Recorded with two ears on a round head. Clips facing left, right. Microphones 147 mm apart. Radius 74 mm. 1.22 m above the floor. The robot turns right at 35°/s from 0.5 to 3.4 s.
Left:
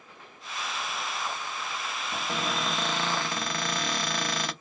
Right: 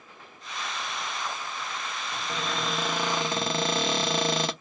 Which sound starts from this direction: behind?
A cupboard door, at 2.1 s.